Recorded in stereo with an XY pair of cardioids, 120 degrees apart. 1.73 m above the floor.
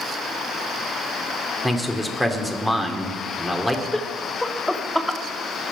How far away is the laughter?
About 1.1 m.